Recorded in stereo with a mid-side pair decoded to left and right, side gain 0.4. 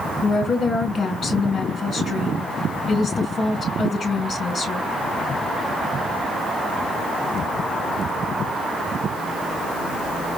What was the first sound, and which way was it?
A woman speaking, 50° left.